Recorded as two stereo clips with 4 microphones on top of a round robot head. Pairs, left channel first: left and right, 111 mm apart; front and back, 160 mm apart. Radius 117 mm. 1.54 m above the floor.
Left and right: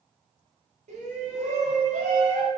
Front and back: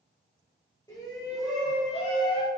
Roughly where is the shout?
Right.